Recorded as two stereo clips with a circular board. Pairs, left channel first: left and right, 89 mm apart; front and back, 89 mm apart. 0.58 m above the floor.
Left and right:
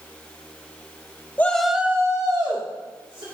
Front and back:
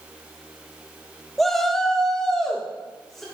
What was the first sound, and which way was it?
A shout, 85° left.